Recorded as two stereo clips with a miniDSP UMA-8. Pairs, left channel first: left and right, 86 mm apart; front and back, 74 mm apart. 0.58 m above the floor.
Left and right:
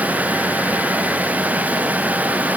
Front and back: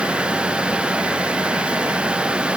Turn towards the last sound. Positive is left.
No sound to turn to.